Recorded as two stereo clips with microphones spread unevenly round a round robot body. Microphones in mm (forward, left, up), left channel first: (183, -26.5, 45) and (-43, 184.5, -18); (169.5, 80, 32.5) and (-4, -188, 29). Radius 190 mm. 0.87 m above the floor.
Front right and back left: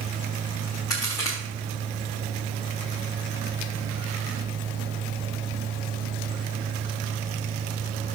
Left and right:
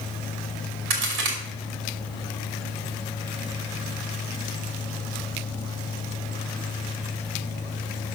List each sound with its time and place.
0.9 s a crack: 125° right, 2.5 m